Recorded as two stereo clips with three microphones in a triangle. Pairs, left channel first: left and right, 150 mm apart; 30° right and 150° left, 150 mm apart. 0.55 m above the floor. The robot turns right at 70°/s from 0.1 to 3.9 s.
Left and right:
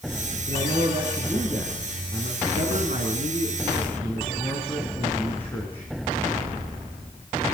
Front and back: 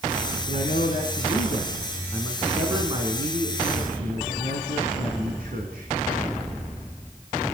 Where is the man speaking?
75° right, 5 m; by 5.9 s 165° left, 5 m.